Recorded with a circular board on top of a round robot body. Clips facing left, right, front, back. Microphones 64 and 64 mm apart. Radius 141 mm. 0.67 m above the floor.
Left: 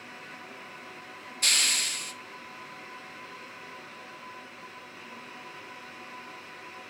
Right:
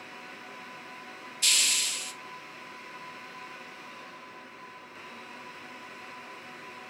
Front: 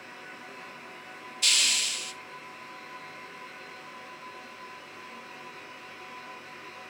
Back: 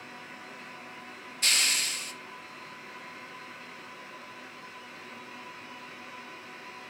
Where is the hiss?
130° left, 1.0 m.